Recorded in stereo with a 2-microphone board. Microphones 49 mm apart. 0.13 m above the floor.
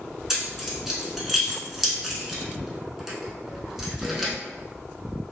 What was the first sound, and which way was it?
Keys jangling, 5° right (ahead or behind).